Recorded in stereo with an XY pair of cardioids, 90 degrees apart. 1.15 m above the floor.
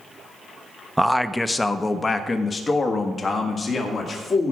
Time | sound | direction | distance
1.0 | a man speaking | 5° right | 0.6 m